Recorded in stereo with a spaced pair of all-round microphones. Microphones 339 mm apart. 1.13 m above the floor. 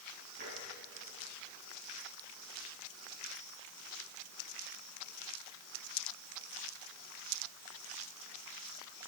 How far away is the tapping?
About 5.5 m.